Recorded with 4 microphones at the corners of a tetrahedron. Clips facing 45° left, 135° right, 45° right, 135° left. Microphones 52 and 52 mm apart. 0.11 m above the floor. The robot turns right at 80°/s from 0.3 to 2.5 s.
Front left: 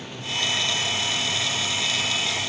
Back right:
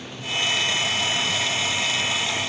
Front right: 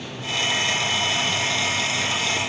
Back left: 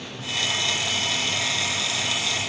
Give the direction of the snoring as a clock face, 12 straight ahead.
No snoring in this recording.